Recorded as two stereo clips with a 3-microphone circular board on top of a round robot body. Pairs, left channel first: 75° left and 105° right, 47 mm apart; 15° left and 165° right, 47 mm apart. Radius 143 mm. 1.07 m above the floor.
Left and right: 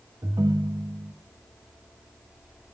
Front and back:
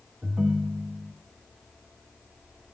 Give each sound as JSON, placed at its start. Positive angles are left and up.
{"t": 0.2, "sound": "a ringtone", "azimuth_deg": -95, "distance_m": 0.8}